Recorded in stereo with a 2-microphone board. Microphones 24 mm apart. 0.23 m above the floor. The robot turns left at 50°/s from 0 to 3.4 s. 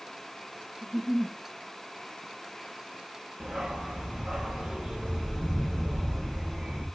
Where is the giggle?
45° right (ahead or behind), 1.2 m; by 1.4 s 20° right (ahead or behind), 1.2 m.